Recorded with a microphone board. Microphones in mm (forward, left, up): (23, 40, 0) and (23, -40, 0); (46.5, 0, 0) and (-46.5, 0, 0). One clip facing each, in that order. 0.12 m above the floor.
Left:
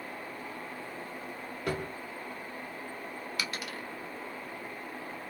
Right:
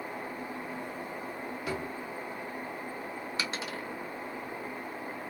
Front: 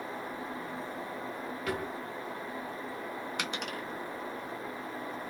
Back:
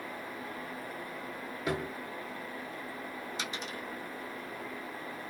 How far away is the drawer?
About 2 m.